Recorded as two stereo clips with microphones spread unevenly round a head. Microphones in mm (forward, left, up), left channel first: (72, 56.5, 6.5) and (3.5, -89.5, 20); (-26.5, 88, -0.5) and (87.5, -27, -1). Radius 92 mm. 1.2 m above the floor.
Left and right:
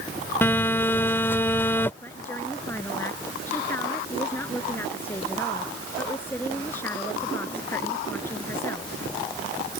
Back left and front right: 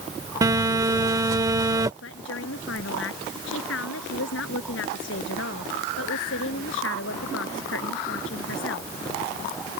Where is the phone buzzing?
5° right.